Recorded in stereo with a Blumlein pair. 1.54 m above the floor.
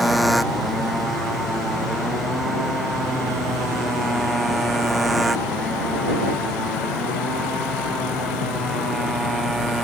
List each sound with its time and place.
0.0 s a motorcycle: straight ahead; by 9.8 s 10° right